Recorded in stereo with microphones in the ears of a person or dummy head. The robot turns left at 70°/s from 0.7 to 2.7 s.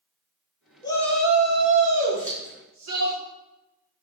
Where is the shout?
30° left, 1.2 m; by 3.1 s 100° right, 1.2 m.